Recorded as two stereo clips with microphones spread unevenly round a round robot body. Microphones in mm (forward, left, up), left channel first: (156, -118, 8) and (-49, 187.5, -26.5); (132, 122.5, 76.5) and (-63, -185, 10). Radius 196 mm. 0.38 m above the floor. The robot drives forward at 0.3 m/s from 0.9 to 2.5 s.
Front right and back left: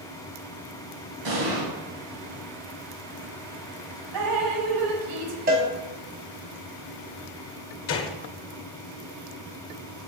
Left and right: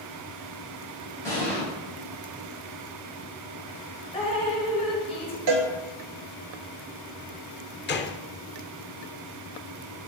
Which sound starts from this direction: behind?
A cowbell, at 5.5 s.